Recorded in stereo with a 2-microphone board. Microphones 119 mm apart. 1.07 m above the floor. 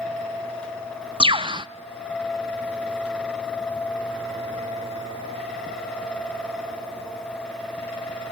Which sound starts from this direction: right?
A bird, at 1.2 s.